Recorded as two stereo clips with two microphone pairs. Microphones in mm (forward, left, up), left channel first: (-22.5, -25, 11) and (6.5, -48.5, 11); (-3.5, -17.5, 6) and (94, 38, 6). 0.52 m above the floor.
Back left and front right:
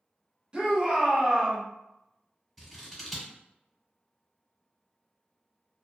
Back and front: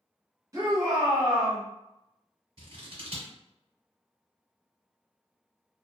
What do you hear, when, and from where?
0.5 s a shout: 5° left, 1.2 m
2.6 s scissors: 55° left, 1.2 m